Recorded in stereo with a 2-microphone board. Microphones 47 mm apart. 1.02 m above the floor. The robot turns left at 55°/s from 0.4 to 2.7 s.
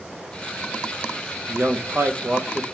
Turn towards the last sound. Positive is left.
turn(degrees=-155)